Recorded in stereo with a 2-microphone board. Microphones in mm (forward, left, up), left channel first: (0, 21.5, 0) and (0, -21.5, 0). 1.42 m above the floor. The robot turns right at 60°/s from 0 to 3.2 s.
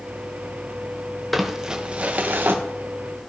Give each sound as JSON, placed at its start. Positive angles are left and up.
{"t": 1.3, "sound": "crumpling", "azimuth_deg": 175, "distance_m": 0.8}